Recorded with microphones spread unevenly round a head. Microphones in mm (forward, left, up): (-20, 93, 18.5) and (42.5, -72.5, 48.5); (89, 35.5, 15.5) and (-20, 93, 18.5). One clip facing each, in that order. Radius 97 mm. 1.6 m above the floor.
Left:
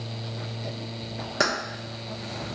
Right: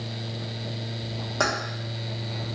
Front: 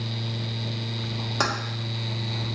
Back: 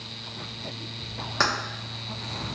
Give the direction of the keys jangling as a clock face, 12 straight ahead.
11 o'clock.